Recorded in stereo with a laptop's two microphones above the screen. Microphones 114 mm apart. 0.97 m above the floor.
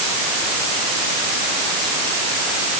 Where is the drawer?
No drawer in this recording.